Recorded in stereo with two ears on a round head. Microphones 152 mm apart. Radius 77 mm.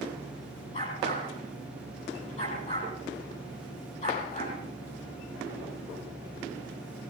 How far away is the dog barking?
About 9 m.